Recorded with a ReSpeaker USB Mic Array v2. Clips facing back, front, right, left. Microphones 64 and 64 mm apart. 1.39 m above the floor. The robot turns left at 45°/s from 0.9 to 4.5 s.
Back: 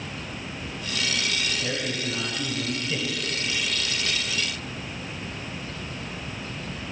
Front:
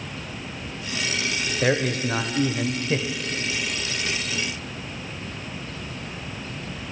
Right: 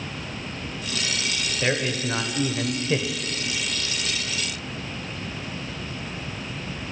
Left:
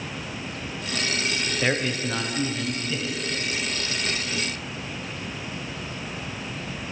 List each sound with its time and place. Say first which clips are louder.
1.6 s a man speaking: front 7 dB, right 1 dB; 10° left, 0.8 m; by 3.2 s 60° right, 0.8 m